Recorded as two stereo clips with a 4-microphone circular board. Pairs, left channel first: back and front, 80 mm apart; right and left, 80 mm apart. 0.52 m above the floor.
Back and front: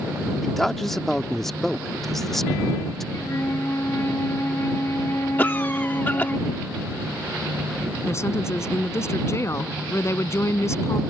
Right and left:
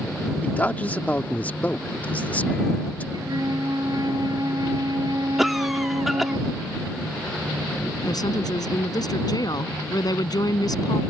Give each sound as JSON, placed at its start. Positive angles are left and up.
{"t": 0.4, "sound": "a man speaking", "azimuth_deg": -100}
{"t": 3.1, "sound": "a flute", "azimuth_deg": 125}
{"t": 5.4, "sound": "a cough", "azimuth_deg": 175}
{"t": 8.1, "sound": "a woman speaking", "azimuth_deg": -125}